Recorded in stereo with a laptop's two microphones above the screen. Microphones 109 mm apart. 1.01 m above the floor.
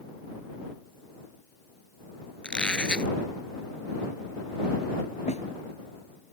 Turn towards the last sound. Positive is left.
turn(degrees=85)